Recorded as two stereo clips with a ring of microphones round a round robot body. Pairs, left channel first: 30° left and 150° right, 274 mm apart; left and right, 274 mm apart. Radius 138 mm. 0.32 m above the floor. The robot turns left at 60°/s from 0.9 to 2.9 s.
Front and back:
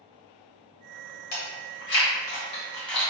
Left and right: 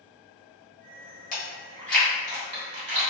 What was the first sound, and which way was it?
Chewing, 40° left.